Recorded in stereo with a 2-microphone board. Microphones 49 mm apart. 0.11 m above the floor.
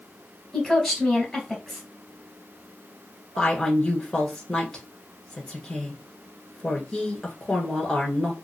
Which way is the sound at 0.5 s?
Centre (ahead or behind).